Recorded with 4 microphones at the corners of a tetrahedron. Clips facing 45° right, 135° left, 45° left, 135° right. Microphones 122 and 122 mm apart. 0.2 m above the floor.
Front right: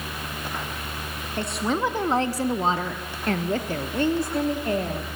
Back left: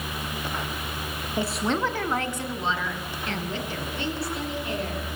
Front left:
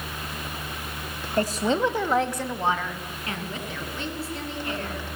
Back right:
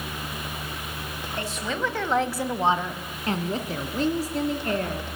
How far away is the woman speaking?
About 1.4 m.